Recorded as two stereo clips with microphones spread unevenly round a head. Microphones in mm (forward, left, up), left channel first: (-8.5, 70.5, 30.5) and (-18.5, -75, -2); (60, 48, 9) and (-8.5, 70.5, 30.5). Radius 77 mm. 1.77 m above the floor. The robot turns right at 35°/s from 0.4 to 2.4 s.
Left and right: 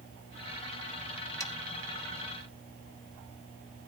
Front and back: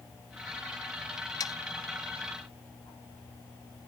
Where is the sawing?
15° left; by 1.5 s 20° left.